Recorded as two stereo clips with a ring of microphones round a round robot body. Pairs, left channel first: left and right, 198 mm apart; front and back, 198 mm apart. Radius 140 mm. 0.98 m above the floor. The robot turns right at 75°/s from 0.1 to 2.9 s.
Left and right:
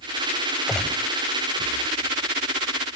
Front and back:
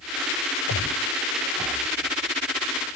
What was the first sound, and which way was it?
A gunshot, 5° right.